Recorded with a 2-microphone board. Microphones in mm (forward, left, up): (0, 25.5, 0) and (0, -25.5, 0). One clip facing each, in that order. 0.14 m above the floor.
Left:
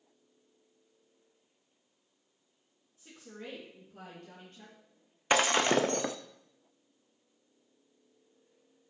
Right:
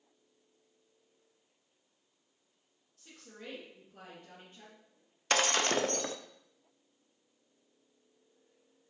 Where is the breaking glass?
20° left (ahead or behind), 0.7 m.